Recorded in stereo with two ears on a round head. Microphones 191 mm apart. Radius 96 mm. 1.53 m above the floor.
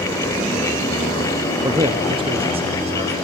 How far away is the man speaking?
About 0.8 m.